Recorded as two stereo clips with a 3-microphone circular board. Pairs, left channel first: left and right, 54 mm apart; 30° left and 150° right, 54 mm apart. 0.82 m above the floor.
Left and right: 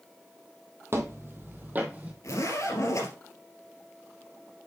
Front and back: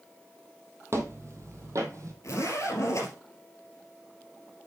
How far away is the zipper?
About 3 m.